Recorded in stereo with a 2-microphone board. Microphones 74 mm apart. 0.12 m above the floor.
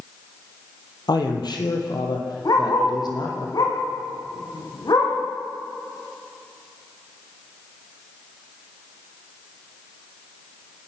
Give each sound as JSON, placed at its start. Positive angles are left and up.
{"t": 1.1, "sound": "a man speaking", "side_deg": 65, "distance_m": 4.0}
{"t": 2.5, "sound": "a dog barking", "side_deg": 60, "distance_m": 7.5}